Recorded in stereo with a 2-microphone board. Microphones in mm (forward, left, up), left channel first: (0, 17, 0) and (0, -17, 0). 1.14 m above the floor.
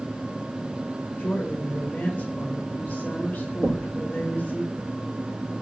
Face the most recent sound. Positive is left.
turn(degrees=-80)